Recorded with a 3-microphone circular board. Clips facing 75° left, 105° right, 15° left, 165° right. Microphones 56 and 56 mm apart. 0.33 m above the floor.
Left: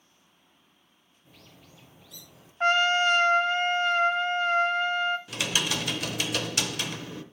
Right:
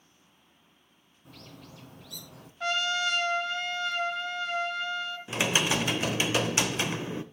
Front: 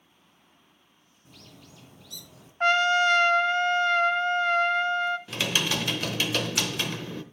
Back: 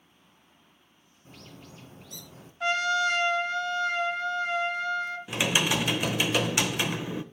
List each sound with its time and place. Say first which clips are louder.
1.2 s a bird: right 6 dB, back 3 dB; 110° right, 2.5 m
2.6 s a trumpet: left 7 dB, front 4 dB; 35° left, 0.6 m
5.3 s typing on a keyboard: right 3 dB, back 2 dB; 110° right, 0.8 m